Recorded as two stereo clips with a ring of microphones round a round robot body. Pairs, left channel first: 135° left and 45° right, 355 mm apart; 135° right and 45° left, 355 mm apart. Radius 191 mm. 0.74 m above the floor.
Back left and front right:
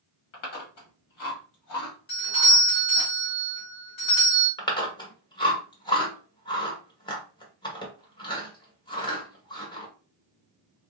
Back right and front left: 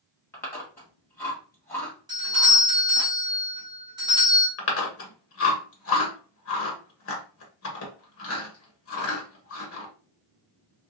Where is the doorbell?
125° left, 2 m.